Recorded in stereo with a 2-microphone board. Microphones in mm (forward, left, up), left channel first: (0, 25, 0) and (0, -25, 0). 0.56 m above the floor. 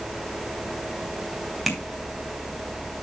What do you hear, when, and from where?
1.7 s tapping: centre (ahead or behind), 2 m